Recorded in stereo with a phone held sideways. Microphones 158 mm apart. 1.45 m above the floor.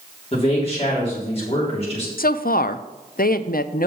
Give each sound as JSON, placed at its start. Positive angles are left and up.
{"t": 0.3, "sound": "a man speaking", "side_deg": 40, "distance_m": 3.5}
{"t": 2.2, "sound": "a woman speaking", "side_deg": 65, "distance_m": 0.5}